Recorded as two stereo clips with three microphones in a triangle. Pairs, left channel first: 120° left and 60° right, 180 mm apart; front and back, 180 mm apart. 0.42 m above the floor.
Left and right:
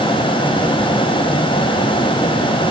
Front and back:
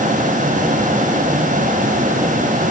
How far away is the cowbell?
No cowbell in this recording.